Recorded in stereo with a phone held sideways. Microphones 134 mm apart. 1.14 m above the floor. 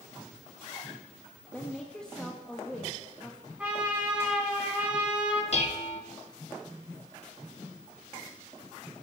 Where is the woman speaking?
5° left (ahead or behind), 1.6 m.